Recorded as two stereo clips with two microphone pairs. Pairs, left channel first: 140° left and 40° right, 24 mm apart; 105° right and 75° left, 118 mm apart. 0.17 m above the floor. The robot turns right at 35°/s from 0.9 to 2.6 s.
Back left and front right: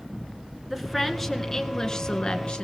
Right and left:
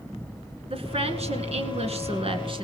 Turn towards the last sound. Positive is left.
turn(degrees=110)